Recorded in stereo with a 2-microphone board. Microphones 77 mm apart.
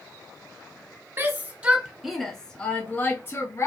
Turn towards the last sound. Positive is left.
turn(degrees=40)  # may be behind; listen again after turning